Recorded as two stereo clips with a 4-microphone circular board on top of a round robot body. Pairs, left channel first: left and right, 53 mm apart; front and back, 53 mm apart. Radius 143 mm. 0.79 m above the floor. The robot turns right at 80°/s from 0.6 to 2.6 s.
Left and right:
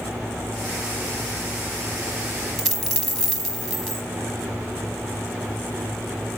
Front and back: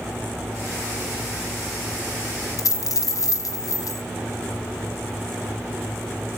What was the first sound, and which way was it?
A dropped coin, 5° right.